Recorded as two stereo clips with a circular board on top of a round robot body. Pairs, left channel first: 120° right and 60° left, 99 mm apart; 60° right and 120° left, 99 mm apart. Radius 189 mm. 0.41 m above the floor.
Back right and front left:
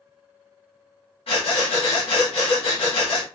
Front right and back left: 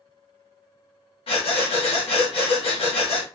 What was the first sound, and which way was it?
Breathing, 90° right.